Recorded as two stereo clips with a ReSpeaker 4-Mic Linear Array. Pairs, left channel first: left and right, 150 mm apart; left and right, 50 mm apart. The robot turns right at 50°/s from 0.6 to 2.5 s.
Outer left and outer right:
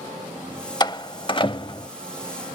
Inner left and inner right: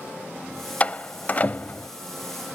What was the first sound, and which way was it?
A door slam, 30° left (ahead or behind).